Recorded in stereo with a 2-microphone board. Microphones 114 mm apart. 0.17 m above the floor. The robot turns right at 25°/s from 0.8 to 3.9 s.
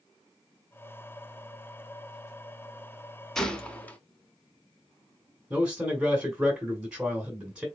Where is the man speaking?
10° right (ahead or behind), 1.1 m.